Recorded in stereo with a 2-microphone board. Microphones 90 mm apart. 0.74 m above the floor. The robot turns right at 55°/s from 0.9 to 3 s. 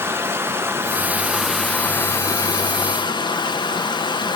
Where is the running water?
30° right, 1.1 m; by 4.4 s 85° left, 1.1 m.